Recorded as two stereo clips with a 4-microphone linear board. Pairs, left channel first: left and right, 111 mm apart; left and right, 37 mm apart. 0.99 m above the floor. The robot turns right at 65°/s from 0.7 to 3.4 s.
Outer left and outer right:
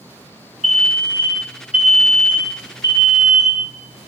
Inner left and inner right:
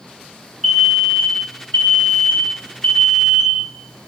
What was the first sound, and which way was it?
An alarm, straight ahead.